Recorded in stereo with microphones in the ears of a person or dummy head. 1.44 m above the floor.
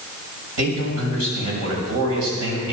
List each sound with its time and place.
0.6 s a man speaking: 85° right, 7 m